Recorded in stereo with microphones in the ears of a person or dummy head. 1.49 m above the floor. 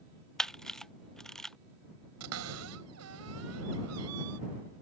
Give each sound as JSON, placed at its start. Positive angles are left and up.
{"t": 0.4, "sound": "a camera shutter", "side_deg": 0}
{"t": 2.2, "sound": "a cupboard door", "side_deg": -80}